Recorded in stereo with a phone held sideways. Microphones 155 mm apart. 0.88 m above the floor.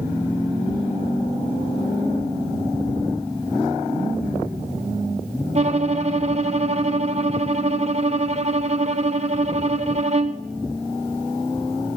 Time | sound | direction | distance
5.5 | a violin | 45° right (ahead or behind) | 0.6 m